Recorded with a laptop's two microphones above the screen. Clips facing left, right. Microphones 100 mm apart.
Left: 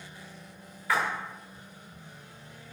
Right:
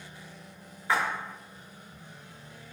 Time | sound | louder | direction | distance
0.9 | a splash | even | 25° right (ahead or behind) | 1.0 m